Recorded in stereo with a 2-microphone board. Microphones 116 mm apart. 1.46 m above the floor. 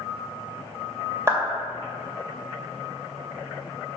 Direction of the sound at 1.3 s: 20° right (ahead or behind).